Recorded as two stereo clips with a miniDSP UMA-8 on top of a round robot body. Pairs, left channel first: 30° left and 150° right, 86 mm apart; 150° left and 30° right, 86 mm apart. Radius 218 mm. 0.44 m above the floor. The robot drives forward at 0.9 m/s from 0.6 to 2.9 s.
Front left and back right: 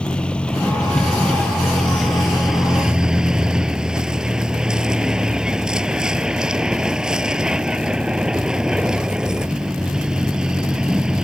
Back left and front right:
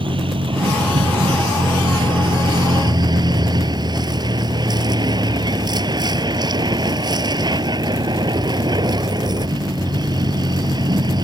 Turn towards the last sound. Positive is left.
turn(degrees=-70)